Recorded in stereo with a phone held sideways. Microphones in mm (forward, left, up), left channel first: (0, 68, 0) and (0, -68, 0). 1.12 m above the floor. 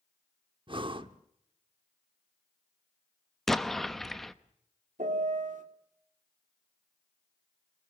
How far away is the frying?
I don't hear frying.